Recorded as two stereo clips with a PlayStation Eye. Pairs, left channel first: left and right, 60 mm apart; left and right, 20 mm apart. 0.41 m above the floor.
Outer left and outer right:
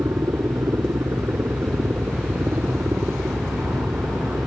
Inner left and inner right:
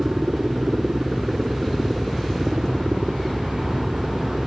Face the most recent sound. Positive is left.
turn(degrees=-45)  # may be behind; listen again after turning